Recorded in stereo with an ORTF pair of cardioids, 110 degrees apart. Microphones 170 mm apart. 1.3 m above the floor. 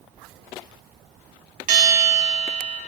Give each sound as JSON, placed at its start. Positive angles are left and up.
{"t": 1.7, "sound": "a bell", "azimuth_deg": -65, "distance_m": 4.0}